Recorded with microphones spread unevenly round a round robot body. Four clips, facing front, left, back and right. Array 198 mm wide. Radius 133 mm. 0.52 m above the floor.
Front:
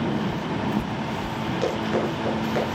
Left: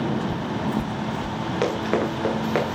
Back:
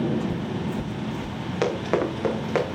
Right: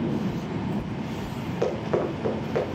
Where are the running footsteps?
120° left, 6 m.